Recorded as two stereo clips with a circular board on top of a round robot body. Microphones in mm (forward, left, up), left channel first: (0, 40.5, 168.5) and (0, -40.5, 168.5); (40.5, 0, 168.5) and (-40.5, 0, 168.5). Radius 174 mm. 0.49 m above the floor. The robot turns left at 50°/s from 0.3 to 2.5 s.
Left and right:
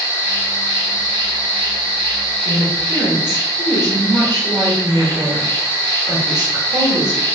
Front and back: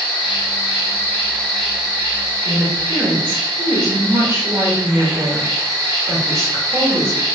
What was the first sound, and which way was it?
An insect, 25° right.